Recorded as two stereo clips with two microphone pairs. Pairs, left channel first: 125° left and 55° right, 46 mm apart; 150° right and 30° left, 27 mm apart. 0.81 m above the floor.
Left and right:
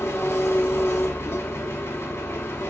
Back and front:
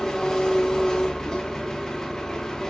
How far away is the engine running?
About 0.9 m.